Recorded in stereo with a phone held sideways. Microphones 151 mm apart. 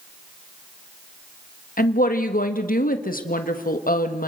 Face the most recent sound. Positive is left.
turn(degrees=70)  # may be behind; listen again after turning